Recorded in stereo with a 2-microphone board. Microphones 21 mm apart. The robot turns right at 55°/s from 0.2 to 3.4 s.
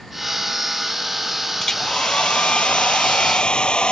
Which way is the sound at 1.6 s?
20° left.